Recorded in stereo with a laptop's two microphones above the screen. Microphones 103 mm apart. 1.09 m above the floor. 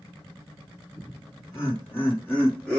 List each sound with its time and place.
1.0 s laughter: 45° left (ahead or behind), 1.2 m; by 2.8 s centre (ahead or behind), 1.0 m